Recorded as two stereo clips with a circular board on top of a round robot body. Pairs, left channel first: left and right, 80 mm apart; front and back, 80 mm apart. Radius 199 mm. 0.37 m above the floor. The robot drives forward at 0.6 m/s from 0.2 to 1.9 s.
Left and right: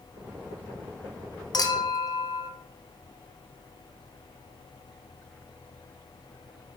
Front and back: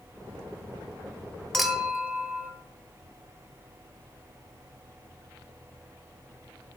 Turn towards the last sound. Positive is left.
turn(degrees=110)